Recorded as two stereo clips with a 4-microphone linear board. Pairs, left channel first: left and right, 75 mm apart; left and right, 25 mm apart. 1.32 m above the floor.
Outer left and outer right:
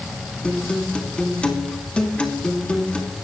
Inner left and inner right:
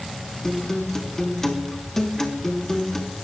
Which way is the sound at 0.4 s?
15° left (ahead or behind).